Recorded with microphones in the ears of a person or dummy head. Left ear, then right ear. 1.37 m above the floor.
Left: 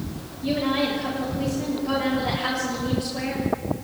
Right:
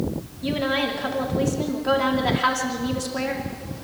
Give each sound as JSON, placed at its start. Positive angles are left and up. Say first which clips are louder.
{"t": 0.4, "sound": "a woman speaking", "louder": "even", "side_deg": -45, "distance_m": 4.0}